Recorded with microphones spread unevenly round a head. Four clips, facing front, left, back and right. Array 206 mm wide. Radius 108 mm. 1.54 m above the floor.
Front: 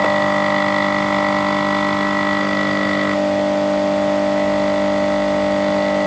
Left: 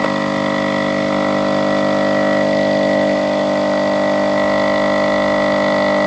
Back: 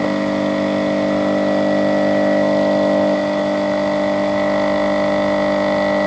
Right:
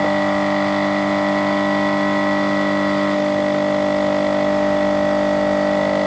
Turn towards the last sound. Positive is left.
No sound to turn to.